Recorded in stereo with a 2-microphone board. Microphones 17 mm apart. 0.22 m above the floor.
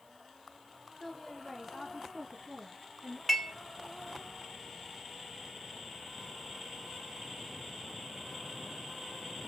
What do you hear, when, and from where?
1.0 s a woman speaking: 20° left (ahead or behind), 1.1 m; by 3.2 s 50° right (ahead or behind), 2 m
3.3 s dishes clattering: centre (ahead or behind), 1.3 m